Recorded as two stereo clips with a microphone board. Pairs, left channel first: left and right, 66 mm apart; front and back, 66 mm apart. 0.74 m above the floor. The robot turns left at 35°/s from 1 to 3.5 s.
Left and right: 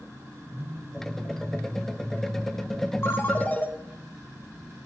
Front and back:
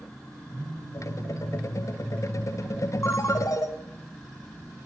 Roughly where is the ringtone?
Ahead left.